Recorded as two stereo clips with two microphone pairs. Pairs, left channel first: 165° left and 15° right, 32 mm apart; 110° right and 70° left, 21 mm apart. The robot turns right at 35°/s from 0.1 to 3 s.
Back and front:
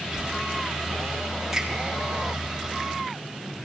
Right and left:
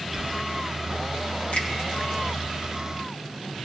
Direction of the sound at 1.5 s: 95° right.